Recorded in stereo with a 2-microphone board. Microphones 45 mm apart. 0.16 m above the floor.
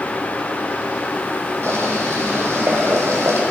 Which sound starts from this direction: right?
Boiling, at 1.6 s.